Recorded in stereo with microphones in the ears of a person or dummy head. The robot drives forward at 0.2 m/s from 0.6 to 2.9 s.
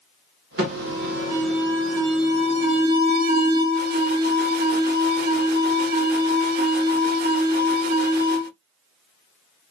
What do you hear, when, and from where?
0.6 s an alarm: 45° right (ahead or behind), 1.3 m; by 8.5 s 50° right (ahead or behind), 1.2 m